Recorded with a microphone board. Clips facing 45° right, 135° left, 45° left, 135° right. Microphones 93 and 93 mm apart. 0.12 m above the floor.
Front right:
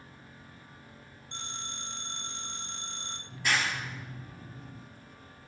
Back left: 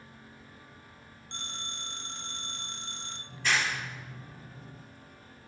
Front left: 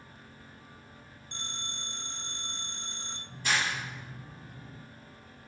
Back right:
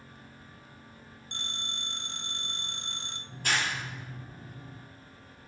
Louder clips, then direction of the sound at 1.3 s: Even, back right 1 dB; 130° right.